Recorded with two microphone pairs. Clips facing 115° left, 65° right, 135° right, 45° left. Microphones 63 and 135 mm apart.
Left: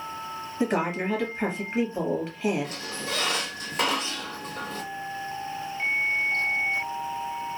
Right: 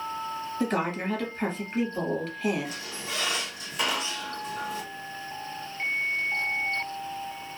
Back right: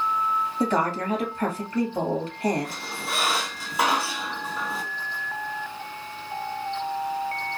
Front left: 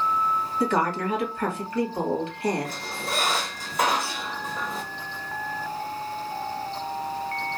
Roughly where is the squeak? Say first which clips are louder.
Left 3 dB, front left 1 dB; behind left.